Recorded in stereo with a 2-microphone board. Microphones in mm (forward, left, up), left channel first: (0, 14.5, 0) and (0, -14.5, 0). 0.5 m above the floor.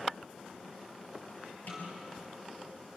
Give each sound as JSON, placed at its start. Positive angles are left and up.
{"t": 1.7, "sound": "a snare drum", "side_deg": 65, "distance_m": 6.0}